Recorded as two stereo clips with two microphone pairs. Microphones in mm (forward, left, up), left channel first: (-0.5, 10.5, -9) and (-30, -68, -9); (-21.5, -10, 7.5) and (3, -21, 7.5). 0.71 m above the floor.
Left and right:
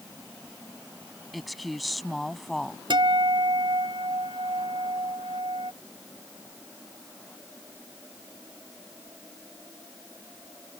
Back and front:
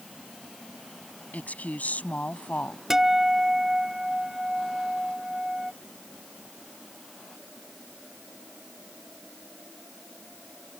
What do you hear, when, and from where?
1.3 s a woman speaking: 160° left
2.9 s a guitar: 100° right